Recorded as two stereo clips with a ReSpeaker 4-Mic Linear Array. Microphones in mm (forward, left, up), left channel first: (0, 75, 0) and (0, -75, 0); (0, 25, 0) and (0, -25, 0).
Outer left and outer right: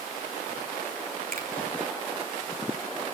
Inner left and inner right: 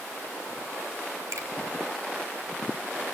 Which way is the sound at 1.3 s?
75° right (ahead or behind).